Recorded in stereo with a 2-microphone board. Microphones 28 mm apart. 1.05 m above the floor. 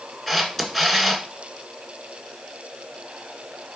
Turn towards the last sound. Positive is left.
turn(degrees=10)  # may be behind; listen again after turning